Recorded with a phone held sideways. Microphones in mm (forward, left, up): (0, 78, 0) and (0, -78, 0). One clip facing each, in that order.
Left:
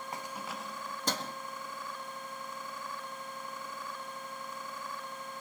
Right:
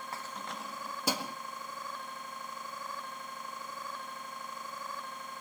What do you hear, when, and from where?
0.1 s keys jangling: 20° left (ahead or behind), 0.7 m; by 1.3 s 10° right (ahead or behind), 1.7 m